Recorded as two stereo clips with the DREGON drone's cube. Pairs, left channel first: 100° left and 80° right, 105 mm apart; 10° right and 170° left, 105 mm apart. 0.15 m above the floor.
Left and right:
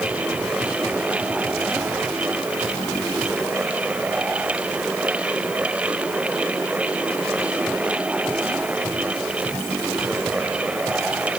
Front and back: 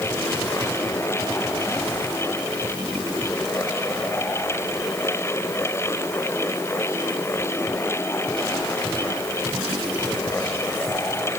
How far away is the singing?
No singing in this recording.